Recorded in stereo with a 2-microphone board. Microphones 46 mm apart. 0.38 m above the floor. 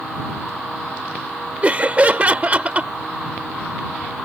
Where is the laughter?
30° right (ahead or behind).